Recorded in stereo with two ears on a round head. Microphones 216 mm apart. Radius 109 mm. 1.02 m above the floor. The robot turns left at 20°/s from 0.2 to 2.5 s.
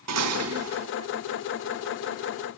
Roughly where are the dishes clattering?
Right.